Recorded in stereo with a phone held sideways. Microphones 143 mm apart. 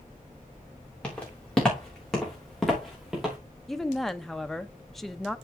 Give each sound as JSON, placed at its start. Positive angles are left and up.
{"t": 1.0, "sound": "footsteps", "side_deg": 10, "distance_m": 6.0}
{"t": 3.7, "sound": "a woman speaking", "side_deg": 0, "distance_m": 0.7}